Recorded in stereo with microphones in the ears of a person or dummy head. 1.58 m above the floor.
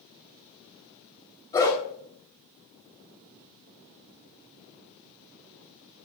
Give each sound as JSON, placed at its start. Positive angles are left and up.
{"t": 1.5, "sound": "a dog barking", "side_deg": 20, "distance_m": 3.5}